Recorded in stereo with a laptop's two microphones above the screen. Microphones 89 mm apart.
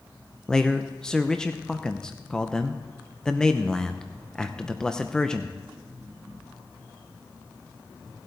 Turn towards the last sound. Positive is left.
turn(degrees=10)  # may be behind; listen again after turning